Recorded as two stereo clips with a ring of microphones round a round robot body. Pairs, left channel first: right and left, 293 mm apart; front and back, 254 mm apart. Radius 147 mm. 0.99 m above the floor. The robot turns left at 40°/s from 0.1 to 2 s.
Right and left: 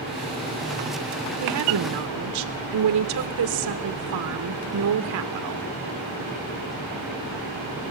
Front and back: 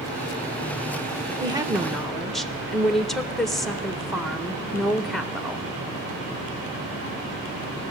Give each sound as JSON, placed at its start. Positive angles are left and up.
{"t": 1.4, "sound": "a woman speaking", "azimuth_deg": 115, "distance_m": 0.7}